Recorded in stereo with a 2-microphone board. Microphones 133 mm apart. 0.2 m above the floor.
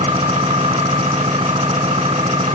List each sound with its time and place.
0.0 s an engine running: 45° right (ahead or behind), 3 m